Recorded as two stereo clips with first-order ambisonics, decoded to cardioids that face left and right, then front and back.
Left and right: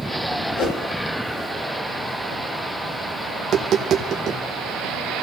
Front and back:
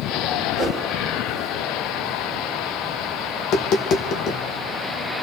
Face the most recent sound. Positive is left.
turn(degrees=-40)